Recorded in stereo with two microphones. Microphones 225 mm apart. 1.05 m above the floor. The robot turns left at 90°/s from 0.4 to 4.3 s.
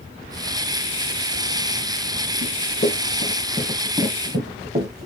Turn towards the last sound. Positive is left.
turn(degrees=-45)  # may be behind; listen again after turning